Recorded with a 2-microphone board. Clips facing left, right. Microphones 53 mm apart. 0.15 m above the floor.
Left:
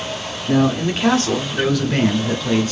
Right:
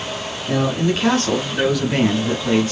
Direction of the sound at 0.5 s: 10° left (ahead or behind).